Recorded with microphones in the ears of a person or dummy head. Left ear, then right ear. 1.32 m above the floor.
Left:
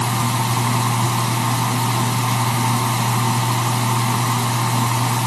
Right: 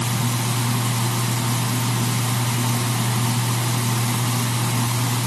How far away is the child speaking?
No child speaking in this recording.